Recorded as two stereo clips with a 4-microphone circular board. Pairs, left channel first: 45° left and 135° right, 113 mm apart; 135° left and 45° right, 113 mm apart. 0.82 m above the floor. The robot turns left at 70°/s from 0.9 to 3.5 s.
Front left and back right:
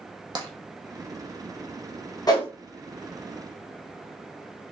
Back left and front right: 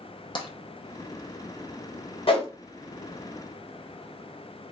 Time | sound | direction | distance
0.3 | tapping | straight behind | 0.6 m
2.3 | a whoosh | 100° left | 0.8 m